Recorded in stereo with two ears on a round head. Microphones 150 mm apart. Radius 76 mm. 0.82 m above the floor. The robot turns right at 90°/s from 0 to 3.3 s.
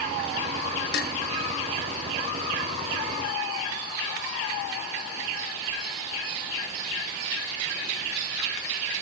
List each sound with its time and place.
0.9 s dishes clattering: 65° left (ahead or behind), 0.6 m; by 1.1 s 50° left (ahead or behind), 0.6 m